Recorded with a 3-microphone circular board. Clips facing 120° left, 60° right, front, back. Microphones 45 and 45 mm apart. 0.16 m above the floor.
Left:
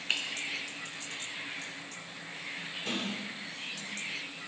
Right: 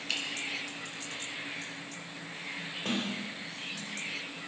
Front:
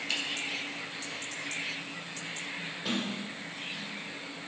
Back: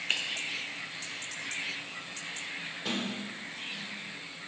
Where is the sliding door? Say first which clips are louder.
Right 2 dB, front 1 dB; 90° right, 3.5 m.